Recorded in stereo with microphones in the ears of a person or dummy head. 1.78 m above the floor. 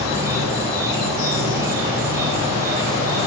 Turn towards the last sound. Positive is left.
turn(degrees=-20)  # may be behind; listen again after turning